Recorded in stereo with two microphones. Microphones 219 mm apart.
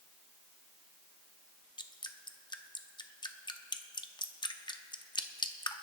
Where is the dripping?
20° left (ahead or behind), 0.7 m.